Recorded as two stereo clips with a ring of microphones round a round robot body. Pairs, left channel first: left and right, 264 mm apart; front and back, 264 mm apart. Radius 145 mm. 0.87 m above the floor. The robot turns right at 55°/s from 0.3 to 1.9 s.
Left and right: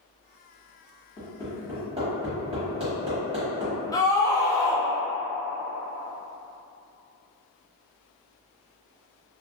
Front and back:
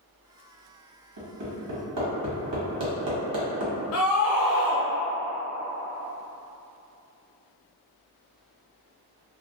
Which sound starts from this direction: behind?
Hammering, at 1.2 s.